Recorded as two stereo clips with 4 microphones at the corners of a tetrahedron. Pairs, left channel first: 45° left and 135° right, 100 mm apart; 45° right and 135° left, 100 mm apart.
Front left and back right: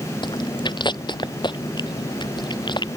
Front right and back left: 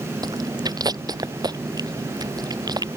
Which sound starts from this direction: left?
Chewing, at 0.2 s.